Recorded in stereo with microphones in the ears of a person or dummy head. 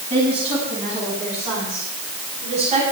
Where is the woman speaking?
25° right (ahead or behind), 9.5 m; by 2.8 s 35° right (ahead or behind), 10 m.